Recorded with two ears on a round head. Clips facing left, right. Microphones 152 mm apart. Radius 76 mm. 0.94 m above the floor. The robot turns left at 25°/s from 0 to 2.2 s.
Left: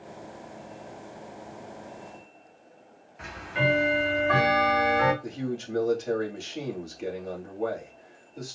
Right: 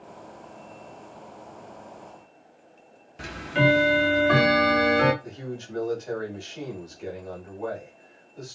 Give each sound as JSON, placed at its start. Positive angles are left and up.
{"t": 3.2, "sound": "ticking", "side_deg": -40, "distance_m": 0.7}
{"t": 5.2, "sound": "a man speaking", "side_deg": 30, "distance_m": 1.9}